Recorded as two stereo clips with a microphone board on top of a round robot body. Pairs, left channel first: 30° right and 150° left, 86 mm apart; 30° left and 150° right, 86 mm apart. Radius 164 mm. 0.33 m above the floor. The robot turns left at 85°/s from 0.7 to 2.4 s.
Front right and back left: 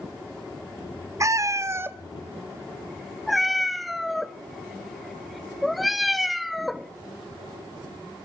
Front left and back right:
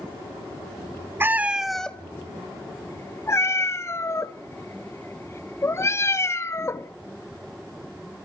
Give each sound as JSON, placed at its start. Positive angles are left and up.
{"t": 1.2, "sound": "a cat meowing", "azimuth_deg": 165, "distance_m": 0.5}